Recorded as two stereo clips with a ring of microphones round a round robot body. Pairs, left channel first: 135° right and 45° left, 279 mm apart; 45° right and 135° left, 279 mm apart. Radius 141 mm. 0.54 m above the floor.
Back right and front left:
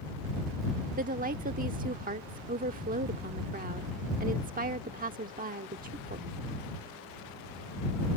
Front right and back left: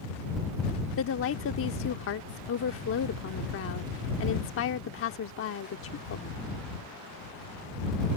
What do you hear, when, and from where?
1.0 s a woman speaking: 10° right